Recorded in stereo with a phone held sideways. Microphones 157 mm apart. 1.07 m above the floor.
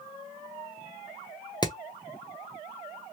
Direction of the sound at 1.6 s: 25° left (ahead or behind).